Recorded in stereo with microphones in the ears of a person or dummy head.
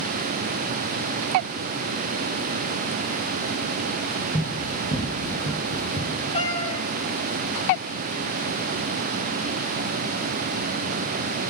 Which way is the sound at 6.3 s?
35° left (ahead or behind).